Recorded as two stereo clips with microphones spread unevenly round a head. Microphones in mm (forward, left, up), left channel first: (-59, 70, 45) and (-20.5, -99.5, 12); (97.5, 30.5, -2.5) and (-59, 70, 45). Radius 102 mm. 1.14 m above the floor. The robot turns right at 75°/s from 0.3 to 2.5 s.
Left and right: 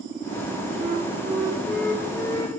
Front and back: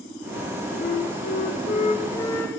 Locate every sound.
0.8 s a flute: 45° right, 0.8 m; by 2.6 s 85° left, 0.8 m